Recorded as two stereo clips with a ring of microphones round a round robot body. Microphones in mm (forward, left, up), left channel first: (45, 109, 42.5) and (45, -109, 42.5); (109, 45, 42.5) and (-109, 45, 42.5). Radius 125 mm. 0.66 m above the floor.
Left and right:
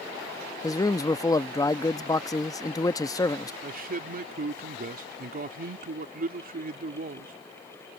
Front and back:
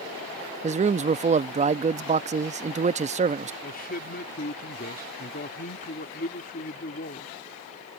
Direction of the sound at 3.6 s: 45° right.